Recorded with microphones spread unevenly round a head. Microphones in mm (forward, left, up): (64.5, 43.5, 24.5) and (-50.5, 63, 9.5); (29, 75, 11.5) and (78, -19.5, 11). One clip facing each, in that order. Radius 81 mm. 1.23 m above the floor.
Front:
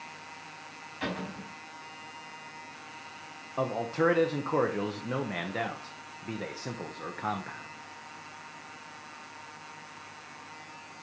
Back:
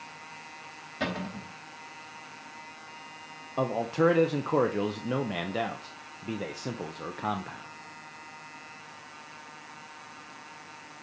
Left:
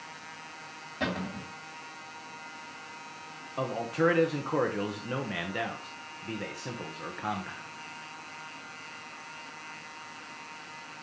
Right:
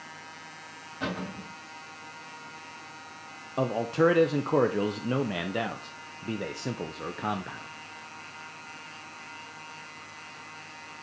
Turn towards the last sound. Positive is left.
turn(degrees=-125)